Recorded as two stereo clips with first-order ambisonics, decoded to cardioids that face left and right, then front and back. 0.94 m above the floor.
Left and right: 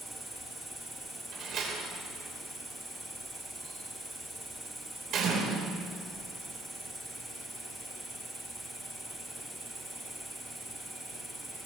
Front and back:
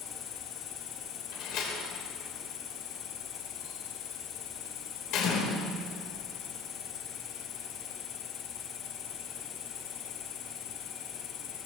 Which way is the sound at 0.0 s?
Straight ahead.